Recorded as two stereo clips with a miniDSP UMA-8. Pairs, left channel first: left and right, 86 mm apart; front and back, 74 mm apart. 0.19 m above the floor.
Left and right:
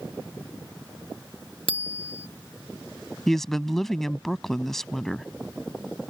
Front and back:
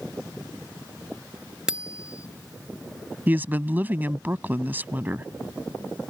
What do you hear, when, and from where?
1.7 s a bicycle bell: 100° left
3.3 s a woman speaking: 170° left